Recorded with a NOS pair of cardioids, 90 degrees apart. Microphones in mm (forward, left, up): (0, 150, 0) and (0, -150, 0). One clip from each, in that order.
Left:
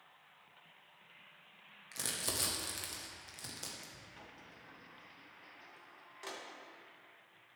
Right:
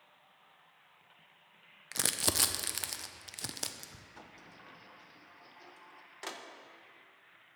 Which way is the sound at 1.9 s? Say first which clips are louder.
Right 7 dB; 50° right.